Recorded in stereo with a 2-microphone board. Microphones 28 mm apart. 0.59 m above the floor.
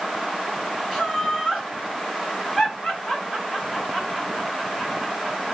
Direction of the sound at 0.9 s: 15° left (ahead or behind).